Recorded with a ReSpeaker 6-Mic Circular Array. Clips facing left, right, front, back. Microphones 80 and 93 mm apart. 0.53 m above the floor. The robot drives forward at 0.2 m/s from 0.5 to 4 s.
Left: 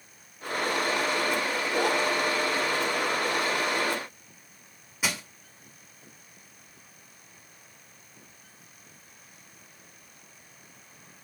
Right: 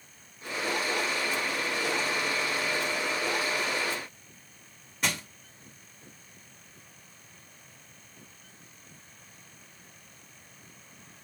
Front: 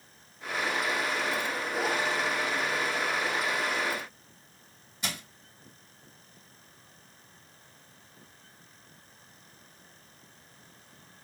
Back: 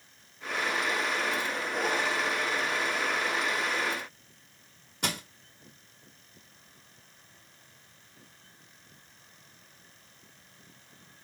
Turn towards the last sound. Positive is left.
turn(degrees=170)